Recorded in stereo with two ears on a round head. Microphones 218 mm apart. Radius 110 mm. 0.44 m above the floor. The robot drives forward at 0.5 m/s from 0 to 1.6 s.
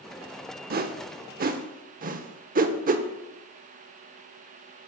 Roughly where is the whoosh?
Right.